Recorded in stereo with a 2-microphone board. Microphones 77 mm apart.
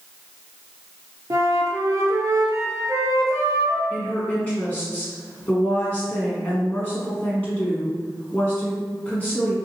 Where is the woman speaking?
20° left (ahead or behind), 1.4 m.